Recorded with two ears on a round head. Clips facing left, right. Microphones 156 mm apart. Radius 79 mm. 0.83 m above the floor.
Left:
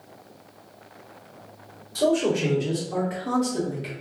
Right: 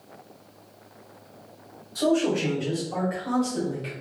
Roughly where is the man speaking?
Left.